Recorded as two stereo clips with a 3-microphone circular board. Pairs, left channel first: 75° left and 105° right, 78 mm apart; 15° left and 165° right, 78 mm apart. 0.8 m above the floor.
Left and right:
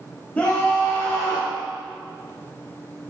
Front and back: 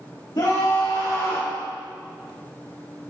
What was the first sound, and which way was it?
A scream, 5° left.